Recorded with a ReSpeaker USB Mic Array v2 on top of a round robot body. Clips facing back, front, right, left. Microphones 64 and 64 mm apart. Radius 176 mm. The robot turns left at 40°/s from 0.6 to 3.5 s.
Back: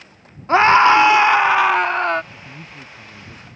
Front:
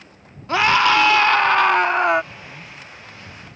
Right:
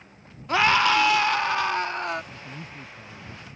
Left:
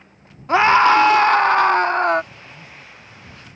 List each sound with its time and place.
0.5 s a scream: 140° left; by 2.2 s 75° left
2.3 s a man speaking: 120° right; by 3.5 s 165° right